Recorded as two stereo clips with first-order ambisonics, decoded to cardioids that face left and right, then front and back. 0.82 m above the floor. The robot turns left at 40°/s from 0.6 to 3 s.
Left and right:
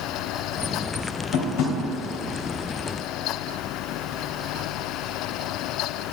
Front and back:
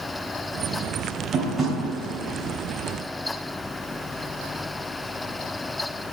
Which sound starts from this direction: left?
Tapping, at 1.3 s.